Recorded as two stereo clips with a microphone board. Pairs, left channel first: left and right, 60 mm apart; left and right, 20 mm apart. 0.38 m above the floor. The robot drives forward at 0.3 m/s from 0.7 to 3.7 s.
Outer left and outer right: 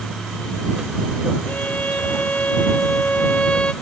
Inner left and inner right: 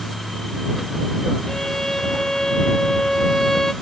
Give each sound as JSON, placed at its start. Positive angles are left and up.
{"t": 1.5, "sound": "a violin", "side_deg": 30, "distance_m": 0.6}